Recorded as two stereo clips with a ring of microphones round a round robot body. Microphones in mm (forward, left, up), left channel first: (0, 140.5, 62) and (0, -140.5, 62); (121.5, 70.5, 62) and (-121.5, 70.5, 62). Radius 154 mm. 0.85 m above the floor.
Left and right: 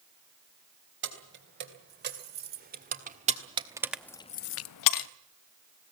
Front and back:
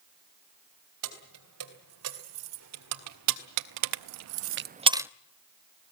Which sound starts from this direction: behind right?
Keys jangling, at 1.0 s.